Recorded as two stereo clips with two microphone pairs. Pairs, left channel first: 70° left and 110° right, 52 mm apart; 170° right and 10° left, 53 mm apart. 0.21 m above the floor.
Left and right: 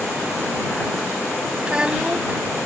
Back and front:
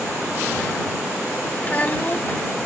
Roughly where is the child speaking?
Behind right.